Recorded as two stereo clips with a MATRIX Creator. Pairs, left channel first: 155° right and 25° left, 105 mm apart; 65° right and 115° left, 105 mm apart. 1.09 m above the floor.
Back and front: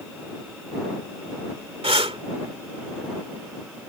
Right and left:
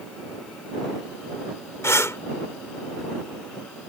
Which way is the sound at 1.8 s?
5° right.